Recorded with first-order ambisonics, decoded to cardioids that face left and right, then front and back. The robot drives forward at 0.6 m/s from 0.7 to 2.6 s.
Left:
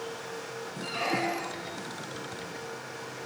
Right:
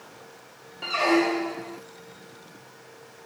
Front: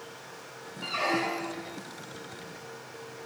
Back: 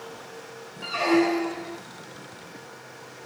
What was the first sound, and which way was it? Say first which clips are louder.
A squeak: right 8 dB, back 6 dB; 90° right.